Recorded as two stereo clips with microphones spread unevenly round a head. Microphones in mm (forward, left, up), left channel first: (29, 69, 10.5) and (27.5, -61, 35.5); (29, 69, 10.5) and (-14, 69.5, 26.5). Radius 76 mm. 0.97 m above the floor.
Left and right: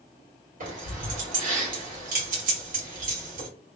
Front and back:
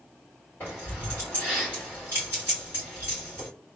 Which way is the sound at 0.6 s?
65° right.